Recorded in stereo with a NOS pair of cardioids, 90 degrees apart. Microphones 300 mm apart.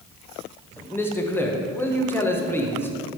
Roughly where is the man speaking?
Ahead.